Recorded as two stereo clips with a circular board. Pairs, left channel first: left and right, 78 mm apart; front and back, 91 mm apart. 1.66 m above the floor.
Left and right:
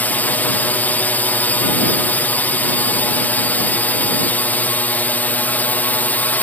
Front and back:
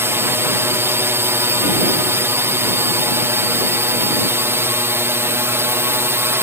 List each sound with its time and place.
0.0 s a drone: 140° left